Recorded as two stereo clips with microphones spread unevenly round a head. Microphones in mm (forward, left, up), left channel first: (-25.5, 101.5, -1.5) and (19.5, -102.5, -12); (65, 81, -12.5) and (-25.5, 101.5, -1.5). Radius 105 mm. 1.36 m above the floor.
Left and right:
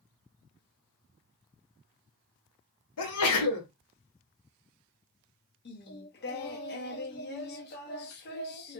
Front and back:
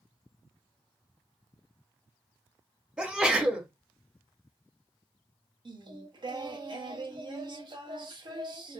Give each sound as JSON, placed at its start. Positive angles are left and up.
{"t": 3.0, "sound": "a sneeze", "azimuth_deg": 85, "distance_m": 1.4}
{"t": 5.7, "sound": "singing", "azimuth_deg": 140, "distance_m": 0.9}